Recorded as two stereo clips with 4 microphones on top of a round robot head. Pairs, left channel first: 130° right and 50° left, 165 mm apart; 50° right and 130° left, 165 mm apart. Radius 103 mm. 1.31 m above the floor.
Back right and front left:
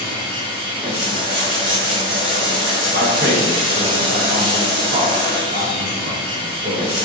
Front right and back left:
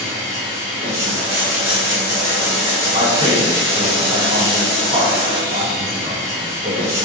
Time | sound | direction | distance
0.0 | running water | 75° left | 1.0 m
2.9 | a man speaking | 80° left | 1.5 m